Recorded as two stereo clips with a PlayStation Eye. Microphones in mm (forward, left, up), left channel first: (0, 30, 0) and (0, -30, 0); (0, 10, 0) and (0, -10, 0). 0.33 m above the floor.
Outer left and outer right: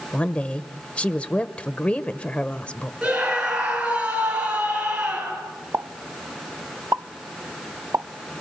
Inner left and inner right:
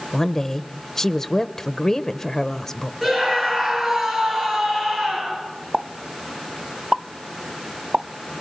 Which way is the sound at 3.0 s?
20° right (ahead or behind).